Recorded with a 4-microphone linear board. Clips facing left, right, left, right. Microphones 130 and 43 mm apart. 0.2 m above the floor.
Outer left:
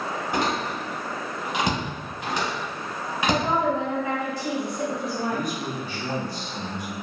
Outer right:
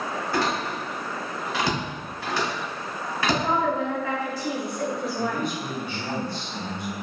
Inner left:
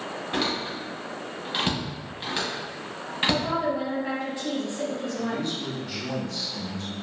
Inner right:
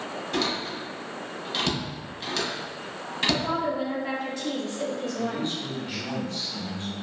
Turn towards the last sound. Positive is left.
turn(degrees=-25)  # may be behind; listen again after turning